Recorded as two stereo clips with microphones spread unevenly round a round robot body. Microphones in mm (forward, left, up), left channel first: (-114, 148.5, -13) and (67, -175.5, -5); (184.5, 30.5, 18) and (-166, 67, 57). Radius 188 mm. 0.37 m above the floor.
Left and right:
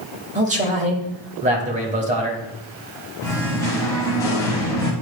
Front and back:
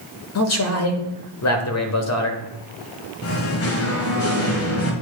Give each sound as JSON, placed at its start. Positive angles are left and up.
{"t": 0.3, "sound": "a man speaking", "azimuth_deg": 5, "distance_m": 1.2}
{"t": 3.2, "sound": "singing", "azimuth_deg": 40, "distance_m": 1.3}